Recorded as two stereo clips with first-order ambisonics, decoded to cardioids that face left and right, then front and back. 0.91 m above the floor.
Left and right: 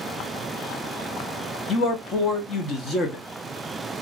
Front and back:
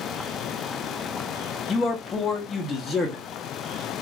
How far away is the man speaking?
About 0.7 m.